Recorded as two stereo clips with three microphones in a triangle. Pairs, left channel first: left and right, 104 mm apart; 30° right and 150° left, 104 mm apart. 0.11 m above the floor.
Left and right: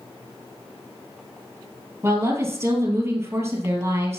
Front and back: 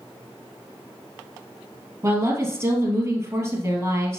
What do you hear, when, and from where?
2.0 s a woman speaking: 150° right, 2.5 m